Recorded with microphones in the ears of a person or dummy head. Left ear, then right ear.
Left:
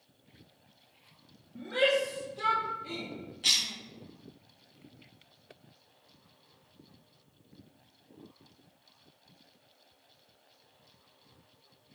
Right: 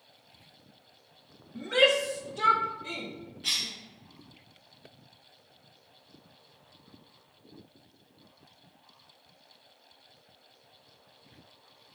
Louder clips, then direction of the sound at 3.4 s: Left 3 dB; 25° left (ahead or behind).